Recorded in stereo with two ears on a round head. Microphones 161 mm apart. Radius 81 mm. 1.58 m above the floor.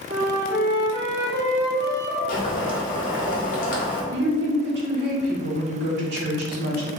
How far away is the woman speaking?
About 1.0 m.